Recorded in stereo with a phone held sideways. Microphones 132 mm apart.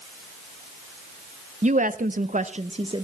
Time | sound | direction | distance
1.6 | a woman speaking | 60° right (ahead or behind) | 0.8 m